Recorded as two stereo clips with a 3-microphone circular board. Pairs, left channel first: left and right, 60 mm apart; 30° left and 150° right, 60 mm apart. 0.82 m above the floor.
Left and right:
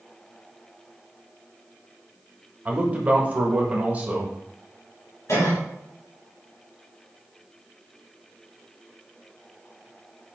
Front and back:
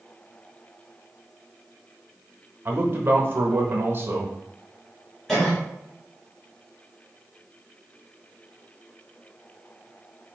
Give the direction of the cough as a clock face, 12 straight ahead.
8 o'clock.